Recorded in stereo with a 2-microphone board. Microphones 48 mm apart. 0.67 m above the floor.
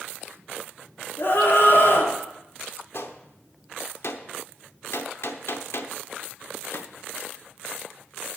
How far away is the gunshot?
About 0.8 m.